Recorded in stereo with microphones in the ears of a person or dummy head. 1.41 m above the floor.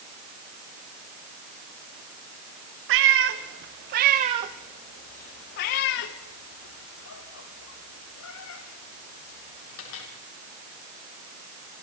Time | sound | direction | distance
2.9 | a cat meowing | 60° right (ahead or behind) | 1.7 m